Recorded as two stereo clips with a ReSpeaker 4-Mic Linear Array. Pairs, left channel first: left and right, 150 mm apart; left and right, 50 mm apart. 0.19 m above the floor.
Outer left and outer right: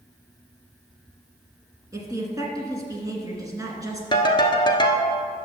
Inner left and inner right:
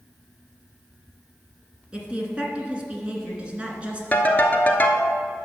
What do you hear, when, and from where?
1.9 s a woman speaking: 25° right (ahead or behind), 1.9 m
4.1 s a ringtone: 30° left (ahead or behind), 1.1 m